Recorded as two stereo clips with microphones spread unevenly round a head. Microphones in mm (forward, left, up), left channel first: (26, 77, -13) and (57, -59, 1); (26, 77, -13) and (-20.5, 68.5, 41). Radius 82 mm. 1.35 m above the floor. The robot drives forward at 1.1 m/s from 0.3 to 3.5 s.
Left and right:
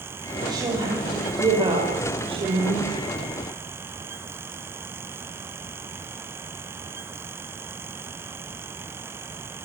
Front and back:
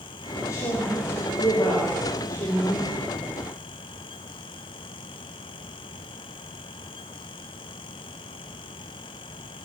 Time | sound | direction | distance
0.4 | a woman speaking | 15° right | 6.5 m